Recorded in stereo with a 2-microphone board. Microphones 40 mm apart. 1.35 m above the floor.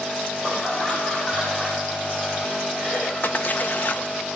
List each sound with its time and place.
0.4 s laughter: 20° left (ahead or behind), 9 m; by 3.1 s 5° left (ahead or behind), 7 m
3.2 s a splash: 55° left (ahead or behind), 1.6 m